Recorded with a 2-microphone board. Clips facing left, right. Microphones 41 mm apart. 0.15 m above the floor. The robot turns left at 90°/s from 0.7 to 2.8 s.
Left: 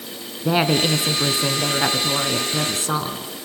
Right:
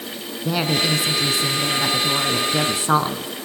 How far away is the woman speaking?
About 1.3 m.